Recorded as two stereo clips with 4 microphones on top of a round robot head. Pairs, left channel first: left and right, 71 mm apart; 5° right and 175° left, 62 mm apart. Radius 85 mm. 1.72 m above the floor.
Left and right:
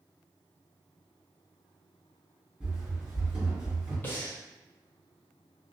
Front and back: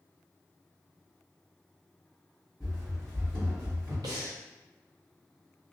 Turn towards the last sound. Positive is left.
turn(degrees=150)